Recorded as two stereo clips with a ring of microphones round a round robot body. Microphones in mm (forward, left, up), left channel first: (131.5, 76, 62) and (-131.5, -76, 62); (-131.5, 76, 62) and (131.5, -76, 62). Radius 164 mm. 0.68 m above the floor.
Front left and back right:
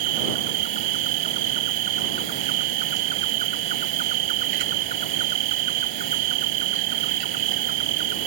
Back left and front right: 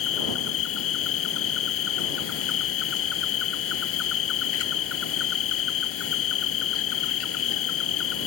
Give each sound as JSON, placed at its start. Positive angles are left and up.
{"t": 0.0, "sound": "an insect", "azimuth_deg": -165}